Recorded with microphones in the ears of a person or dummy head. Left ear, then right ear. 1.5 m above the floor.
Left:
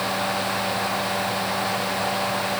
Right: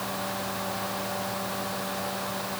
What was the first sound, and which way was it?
Only background noise.